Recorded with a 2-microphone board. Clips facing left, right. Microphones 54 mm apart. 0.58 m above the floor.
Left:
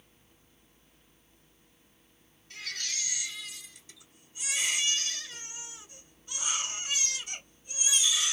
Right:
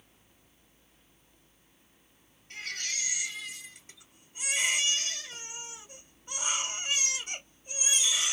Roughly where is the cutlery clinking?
No cutlery clinking in this recording.